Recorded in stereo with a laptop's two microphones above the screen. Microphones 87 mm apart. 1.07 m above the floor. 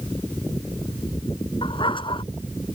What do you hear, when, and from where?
1.6 s a dog barking: 70° left (ahead or behind)